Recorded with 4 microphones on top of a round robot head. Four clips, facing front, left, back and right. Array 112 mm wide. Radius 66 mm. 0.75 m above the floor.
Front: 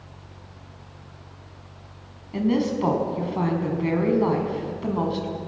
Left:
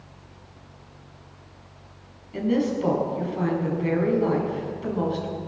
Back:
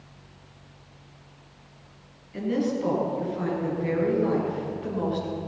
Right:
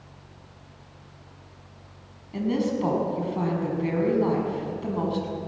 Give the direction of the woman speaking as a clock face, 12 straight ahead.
1 o'clock.